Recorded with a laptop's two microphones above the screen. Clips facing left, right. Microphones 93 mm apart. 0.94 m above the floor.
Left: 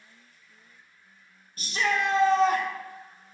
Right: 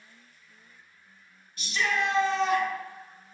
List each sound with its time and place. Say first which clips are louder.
1.6 s a shout: left 2 dB; 45° left (ahead or behind), 0.6 m